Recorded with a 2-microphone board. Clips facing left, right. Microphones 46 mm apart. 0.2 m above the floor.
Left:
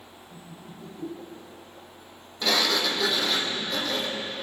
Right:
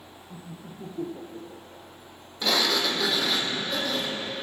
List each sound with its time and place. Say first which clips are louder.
0.3 s laughter: right 3 dB; 50° right (ahead or behind), 3.5 m; by 1.9 s 75° right (ahead or behind), 3.5 m
2.4 s a sliding door: even; centre (ahead or behind), 1.9 m